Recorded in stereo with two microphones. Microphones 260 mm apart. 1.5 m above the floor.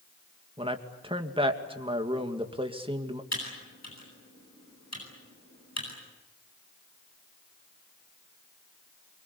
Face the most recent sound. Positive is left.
turn(degrees=90)